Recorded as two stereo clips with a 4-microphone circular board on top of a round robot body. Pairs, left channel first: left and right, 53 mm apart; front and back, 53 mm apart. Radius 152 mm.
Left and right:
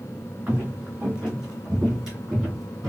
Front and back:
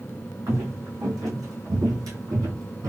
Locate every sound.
0.5 s footsteps: 160° right, 2.5 m; by 2.9 s 175° right, 1.4 m